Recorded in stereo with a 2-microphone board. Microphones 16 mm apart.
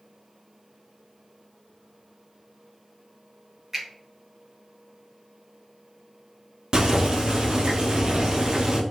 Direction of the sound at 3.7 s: 25° right (ahead or behind).